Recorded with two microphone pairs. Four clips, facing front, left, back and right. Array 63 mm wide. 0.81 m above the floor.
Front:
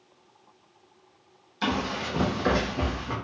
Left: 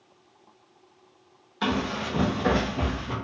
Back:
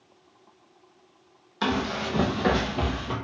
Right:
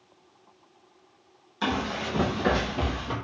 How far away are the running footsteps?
About 1.4 m.